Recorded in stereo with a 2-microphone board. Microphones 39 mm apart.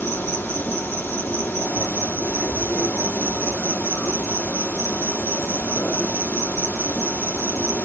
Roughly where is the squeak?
I don't hear a squeak.